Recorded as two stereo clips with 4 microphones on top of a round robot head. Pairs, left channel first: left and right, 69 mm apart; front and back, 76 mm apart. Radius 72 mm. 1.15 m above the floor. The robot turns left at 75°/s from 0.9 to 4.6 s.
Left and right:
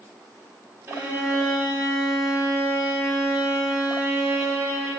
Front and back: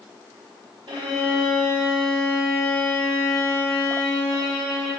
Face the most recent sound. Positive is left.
turn(degrees=-65)